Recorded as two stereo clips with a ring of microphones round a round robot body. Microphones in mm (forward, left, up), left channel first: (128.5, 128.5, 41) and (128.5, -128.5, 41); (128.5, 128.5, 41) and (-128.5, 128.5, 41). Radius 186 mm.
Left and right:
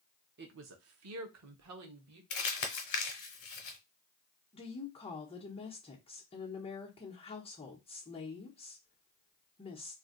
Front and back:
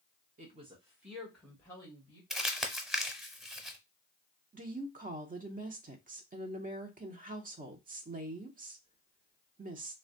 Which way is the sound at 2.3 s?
90° left.